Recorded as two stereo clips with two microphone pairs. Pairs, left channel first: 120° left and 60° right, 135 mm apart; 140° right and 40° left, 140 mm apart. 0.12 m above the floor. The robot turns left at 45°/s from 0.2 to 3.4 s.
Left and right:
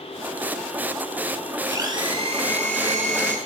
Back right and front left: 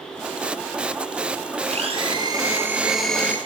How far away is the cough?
I don't hear a cough.